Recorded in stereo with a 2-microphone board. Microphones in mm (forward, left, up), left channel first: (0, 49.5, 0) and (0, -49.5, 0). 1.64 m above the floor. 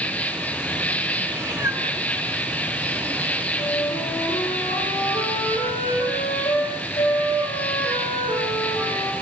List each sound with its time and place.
0.0 s an insect: 15° left (ahead or behind), 2.5 m
1.3 s a cat meowing: 25° right (ahead or behind), 2.5 m
3.6 s a flute: 80° left, 8.5 m